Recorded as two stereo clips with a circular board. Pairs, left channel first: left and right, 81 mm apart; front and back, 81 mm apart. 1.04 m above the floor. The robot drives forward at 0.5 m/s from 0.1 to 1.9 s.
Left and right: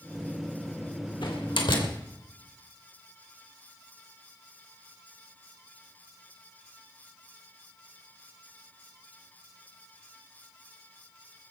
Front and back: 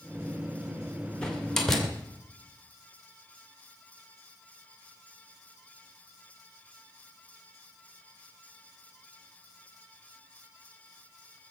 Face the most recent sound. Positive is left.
turn(degrees=90)